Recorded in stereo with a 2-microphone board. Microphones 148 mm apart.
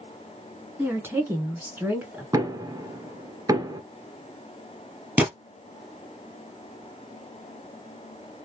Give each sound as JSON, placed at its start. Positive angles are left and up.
{"t": 0.8, "sound": "a woman speaking", "side_deg": -15, "distance_m": 1.6}
{"t": 2.3, "sound": "knocking", "side_deg": -25, "distance_m": 1.2}
{"t": 5.2, "sound": "a gunshot", "side_deg": -15, "distance_m": 1.9}